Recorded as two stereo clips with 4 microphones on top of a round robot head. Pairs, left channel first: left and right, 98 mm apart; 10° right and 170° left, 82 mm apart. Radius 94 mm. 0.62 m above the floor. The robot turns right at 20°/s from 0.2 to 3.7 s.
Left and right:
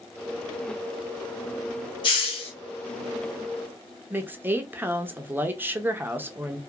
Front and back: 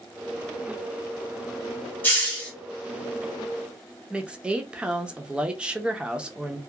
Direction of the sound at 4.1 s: 135° right.